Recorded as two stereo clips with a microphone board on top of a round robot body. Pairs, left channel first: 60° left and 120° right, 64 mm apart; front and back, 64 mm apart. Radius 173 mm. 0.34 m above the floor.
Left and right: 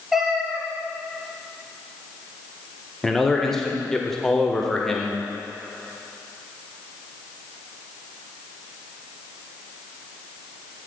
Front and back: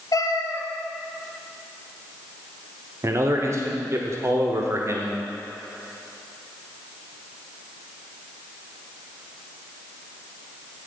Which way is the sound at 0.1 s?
35° right.